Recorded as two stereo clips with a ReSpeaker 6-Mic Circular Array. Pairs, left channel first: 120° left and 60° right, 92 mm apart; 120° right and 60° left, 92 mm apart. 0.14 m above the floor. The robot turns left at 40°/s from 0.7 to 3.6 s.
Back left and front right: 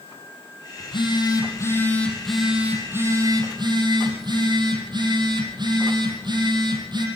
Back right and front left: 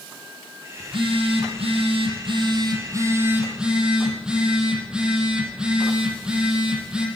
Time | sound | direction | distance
0.8 | a phone buzzing | 90° left | 5 m